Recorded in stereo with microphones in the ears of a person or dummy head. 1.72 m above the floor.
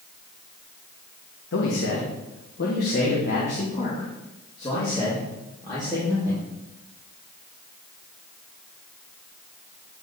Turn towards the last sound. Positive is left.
turn(degrees=20)  # may be behind; listen again after turning